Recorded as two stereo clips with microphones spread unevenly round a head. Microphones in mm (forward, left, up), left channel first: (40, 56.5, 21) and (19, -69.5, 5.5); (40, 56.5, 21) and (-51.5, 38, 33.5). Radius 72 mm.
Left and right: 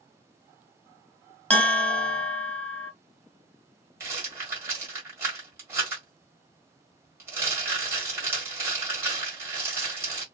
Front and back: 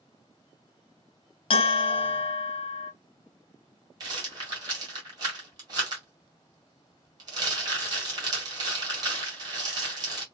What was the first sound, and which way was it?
A bell, straight ahead.